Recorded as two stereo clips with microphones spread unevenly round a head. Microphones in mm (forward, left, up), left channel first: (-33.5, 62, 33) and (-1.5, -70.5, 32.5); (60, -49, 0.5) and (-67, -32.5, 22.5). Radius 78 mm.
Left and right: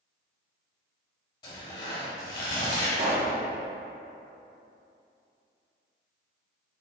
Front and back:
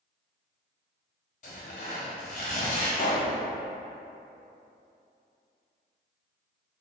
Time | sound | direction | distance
1.4 | tearing paper | 40° left | 0.8 m
3.0 | a pop | 25° right | 0.7 m